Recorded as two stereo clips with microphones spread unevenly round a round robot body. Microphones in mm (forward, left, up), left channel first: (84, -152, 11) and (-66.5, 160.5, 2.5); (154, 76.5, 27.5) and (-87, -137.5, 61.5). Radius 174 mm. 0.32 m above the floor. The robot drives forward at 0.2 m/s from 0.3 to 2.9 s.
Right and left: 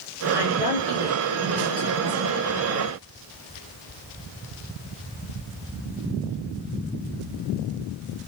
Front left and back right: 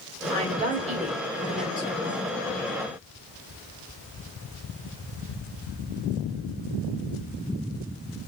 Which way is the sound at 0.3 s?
75° right.